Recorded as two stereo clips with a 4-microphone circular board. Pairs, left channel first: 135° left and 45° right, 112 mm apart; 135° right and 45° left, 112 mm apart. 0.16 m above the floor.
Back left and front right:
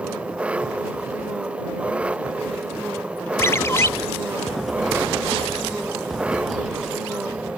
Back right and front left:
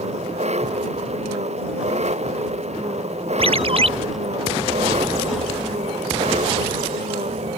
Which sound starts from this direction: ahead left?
An engine running, at 0.0 s.